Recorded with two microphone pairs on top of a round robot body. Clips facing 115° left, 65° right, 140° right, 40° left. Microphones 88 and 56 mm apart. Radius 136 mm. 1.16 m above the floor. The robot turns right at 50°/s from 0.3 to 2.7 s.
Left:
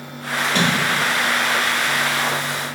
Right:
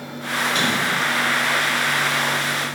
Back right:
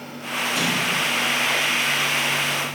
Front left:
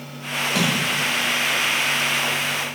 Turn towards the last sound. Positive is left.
turn(degrees=165)